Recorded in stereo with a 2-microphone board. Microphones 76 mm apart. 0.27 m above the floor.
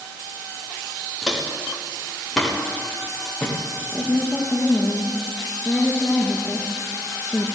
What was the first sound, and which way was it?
Footsteps, centre (ahead or behind).